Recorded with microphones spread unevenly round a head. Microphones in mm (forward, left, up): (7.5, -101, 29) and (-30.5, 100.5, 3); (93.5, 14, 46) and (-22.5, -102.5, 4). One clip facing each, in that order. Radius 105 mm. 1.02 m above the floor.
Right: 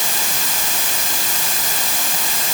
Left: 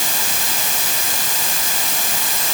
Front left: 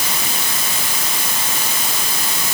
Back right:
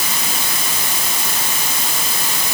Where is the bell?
I don't hear a bell.